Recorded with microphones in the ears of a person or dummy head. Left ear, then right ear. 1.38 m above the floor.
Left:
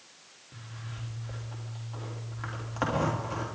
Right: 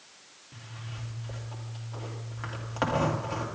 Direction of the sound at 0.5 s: 5° right (ahead or behind).